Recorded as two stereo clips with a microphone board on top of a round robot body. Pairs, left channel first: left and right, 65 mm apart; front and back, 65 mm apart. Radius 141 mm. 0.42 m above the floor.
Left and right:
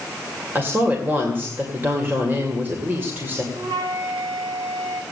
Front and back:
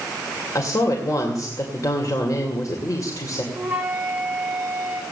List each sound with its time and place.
0.6 s a woman speaking: 35° right, 2.5 m
3.5 s a flute: 115° right, 3.5 m